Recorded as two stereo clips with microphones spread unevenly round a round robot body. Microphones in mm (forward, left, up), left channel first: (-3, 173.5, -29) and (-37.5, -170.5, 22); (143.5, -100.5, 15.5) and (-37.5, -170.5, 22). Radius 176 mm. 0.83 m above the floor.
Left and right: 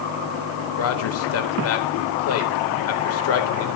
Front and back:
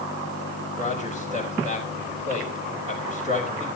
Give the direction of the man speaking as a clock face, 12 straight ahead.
8 o'clock.